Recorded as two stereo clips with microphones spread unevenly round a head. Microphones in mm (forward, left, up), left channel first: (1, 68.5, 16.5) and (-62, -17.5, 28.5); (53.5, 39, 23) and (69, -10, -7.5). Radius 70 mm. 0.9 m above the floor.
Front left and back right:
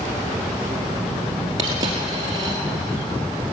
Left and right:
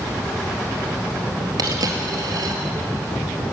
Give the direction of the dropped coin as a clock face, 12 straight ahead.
2 o'clock.